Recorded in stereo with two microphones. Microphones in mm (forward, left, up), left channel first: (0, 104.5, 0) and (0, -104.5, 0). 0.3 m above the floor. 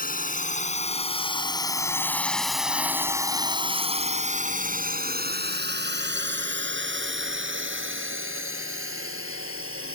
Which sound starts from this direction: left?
A drone, at 0.0 s.